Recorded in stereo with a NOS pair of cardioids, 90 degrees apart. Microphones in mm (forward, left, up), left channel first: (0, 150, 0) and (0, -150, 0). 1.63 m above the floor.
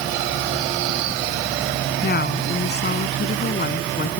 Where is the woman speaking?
35° left.